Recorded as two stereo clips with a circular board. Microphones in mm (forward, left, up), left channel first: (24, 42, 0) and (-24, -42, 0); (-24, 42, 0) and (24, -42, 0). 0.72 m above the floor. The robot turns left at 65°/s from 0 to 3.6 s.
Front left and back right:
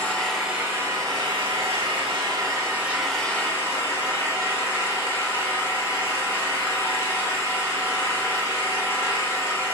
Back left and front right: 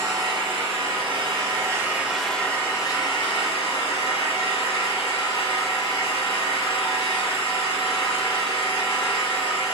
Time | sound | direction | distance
0.0 | an engine running | 5° right | 1.7 m